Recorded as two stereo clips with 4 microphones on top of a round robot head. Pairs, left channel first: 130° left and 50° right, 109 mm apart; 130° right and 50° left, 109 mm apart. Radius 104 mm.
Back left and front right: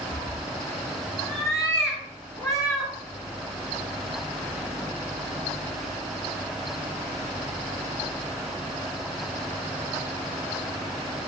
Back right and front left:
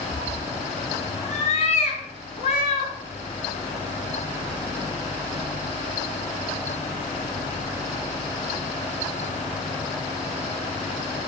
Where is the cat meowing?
160° right, 3 m.